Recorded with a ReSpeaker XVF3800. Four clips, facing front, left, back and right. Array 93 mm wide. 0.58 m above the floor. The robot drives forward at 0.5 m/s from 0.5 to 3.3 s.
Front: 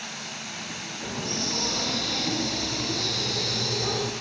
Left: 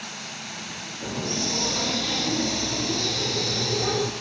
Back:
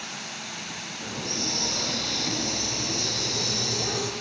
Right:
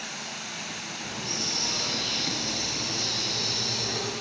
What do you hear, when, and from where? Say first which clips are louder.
1.0 s a hiss: left 8 dB, front 2 dB; 90° left, 3.5 m; by 4.1 s 110° left, 4 m